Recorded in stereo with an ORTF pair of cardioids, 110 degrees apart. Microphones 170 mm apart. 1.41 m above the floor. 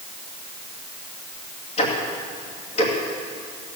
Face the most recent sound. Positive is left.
turn(degrees=40)